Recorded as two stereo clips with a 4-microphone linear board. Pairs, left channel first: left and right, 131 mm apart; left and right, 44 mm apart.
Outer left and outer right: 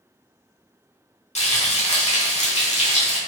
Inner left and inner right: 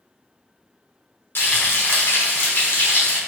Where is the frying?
60° left (ahead or behind), 1.1 m.